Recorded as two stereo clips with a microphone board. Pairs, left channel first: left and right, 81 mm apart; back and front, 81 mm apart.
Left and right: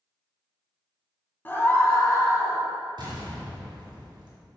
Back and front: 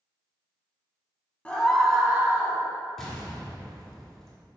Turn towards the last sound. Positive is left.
turn(degrees=-90)